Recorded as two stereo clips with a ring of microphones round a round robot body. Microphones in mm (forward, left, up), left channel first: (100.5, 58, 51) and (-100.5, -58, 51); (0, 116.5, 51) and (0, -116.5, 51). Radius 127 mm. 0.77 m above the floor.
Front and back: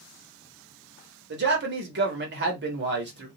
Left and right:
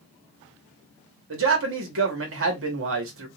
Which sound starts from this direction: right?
A man speaking, at 1.3 s.